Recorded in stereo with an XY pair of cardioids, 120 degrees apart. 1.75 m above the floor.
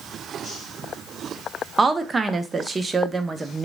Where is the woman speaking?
25° right, 0.5 m.